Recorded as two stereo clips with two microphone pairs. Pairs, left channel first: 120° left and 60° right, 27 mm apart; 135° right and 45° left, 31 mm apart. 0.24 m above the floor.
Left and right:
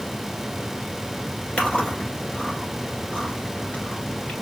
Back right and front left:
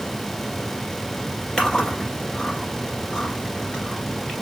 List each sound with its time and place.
1.6 s chewing: 160° left, 1.6 m